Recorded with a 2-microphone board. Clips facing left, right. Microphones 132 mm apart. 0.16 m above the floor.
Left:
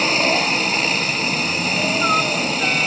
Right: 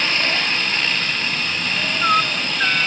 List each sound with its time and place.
0.0 s a helicopter: 35° left (ahead or behind)